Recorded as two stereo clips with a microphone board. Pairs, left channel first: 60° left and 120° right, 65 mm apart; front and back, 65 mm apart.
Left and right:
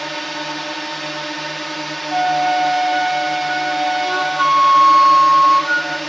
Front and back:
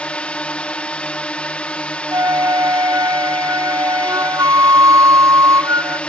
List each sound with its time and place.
0.0 s a drone: 25° right
2.1 s a flute: 155° left